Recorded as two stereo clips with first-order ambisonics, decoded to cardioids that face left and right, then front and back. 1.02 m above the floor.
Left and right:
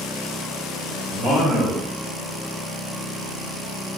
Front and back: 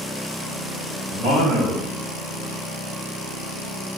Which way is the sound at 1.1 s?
170° right.